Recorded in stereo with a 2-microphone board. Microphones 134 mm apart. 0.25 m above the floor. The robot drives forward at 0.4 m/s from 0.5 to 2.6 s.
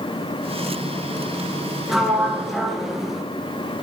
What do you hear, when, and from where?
1.9 s a sliding door: centre (ahead or behind), 3 m